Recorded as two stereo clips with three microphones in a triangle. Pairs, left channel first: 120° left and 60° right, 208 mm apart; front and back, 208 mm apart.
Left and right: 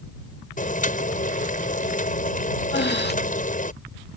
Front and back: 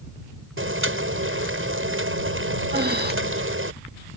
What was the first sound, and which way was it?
Boiling, 170° left.